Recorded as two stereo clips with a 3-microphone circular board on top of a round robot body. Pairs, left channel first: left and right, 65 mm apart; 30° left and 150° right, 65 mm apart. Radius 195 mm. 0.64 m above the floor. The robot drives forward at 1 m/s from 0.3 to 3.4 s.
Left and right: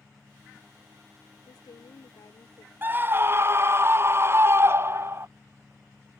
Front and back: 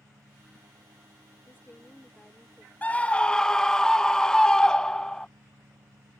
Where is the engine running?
175° right.